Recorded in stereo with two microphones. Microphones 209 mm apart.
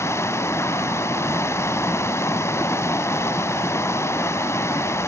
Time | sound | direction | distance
0.0 | running water | 15° left (ahead or behind) | 0.7 m